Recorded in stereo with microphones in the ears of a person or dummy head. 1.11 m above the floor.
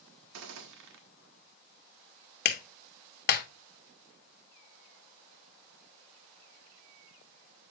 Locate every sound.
0.3 s a gunshot: 70° right (ahead or behind), 1.2 m
2.5 s a clap: 50° left (ahead or behind), 1.2 m